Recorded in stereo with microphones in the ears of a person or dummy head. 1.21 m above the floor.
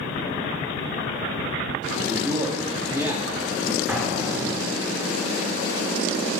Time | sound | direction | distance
1.9 | a man speaking | 15° right (ahead or behind) | 2 m
3.9 | an explosion | 20° right (ahead or behind) | 4.5 m